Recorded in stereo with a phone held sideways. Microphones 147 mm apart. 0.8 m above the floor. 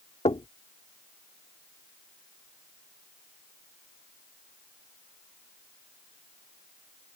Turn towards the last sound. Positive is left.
turn(degrees=45)  # may be behind; listen again after turning